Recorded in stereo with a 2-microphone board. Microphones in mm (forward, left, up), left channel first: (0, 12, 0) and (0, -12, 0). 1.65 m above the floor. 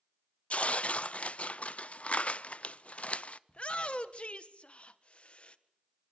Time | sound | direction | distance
0.5 | tearing paper | 55° left (ahead or behind) | 0.6 m
3.5 | a shout | 50° left (ahead or behind) | 1.5 m